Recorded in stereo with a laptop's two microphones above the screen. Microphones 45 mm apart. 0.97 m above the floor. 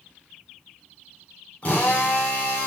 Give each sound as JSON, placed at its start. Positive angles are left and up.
{"t": 1.6, "sound": "a drill", "side_deg": 30, "distance_m": 3.0}